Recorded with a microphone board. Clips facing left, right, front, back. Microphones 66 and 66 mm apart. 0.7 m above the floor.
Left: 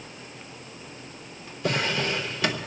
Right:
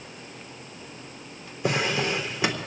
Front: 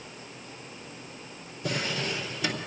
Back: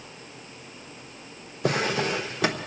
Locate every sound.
1.6 s a drawer: 160° right, 1.2 m